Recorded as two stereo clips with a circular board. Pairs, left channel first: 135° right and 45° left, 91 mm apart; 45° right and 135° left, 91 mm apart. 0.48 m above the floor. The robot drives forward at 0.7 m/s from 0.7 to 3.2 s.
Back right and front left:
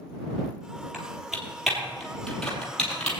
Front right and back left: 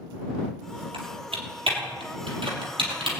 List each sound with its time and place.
0.9 s typing on a keyboard: 130° left, 3 m; by 3.1 s 145° left, 4 m